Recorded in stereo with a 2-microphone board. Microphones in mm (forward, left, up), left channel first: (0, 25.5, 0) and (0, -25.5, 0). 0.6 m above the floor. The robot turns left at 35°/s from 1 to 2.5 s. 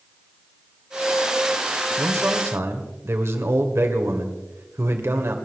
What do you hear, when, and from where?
2.0 s a man speaking: 70° right (ahead or behind), 2 m; by 5.3 s 60° right (ahead or behind), 2 m